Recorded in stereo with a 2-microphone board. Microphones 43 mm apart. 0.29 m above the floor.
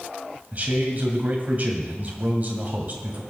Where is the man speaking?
40° right (ahead or behind), 2 m.